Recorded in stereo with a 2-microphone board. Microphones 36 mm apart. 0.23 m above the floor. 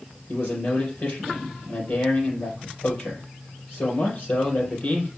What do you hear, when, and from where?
0.3 s a man speaking: 50° left (ahead or behind), 3.5 m